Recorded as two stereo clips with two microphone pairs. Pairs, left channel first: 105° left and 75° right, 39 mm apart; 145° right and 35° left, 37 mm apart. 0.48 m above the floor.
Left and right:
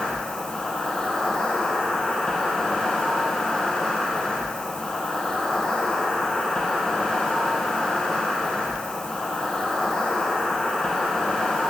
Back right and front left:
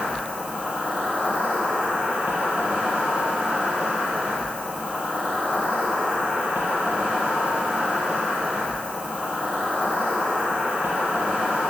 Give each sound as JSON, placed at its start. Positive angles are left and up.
{"t": 0.0, "sound": "an insect", "azimuth_deg": 35, "distance_m": 4.0}